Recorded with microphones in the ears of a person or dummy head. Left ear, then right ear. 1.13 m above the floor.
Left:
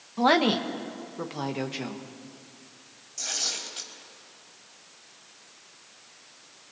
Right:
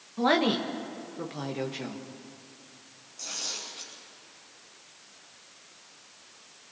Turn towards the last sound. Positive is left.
turn(degrees=90)